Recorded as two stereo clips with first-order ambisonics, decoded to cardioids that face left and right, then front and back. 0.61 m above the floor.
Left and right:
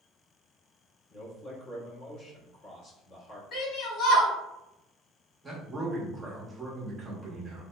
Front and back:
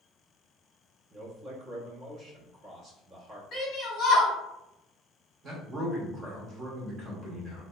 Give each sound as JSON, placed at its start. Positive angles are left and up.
{"t": 1.1, "sound": "a man speaking", "azimuth_deg": 125, "distance_m": 1.0}
{"t": 3.5, "sound": "a shout", "azimuth_deg": 35, "distance_m": 0.9}
{"t": 5.4, "sound": "a man speaking", "azimuth_deg": -155, "distance_m": 0.7}